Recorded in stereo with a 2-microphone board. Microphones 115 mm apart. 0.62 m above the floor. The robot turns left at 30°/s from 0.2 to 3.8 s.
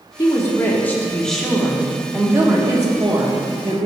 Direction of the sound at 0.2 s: 40° left.